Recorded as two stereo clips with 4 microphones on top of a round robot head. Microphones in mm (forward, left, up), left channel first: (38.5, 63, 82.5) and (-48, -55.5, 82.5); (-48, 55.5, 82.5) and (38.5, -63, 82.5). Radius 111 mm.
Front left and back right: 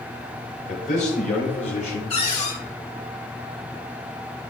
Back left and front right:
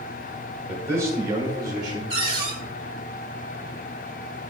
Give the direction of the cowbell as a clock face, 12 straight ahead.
No cowbell in this recording.